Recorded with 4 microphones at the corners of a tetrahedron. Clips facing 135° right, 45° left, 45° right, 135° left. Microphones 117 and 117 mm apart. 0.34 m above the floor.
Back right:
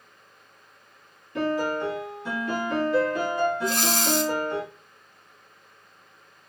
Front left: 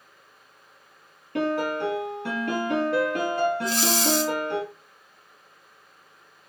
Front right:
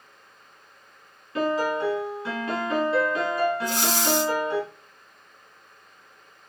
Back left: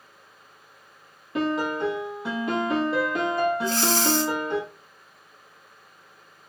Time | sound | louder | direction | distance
1.4 | a piano | even, front right 1 dB | 70° left | 3 m
3.6 | breathing | front left 1 dB, back left 2 dB | 115° right | 0.7 m